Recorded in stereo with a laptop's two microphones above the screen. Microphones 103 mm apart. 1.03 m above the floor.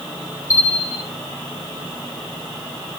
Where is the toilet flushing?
No toilet flushing in this recording.